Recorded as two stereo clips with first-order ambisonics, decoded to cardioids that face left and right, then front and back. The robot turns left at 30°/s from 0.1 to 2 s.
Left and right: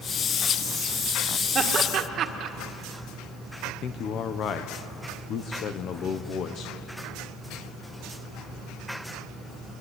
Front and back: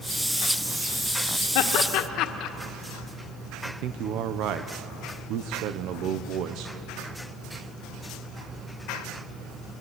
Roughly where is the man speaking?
Behind left.